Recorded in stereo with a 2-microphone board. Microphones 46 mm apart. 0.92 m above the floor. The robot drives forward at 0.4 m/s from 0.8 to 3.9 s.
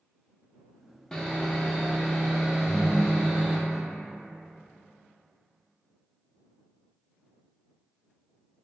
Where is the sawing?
15° left (ahead or behind), 0.5 m; by 3.6 s 5° left (ahead or behind), 1.3 m.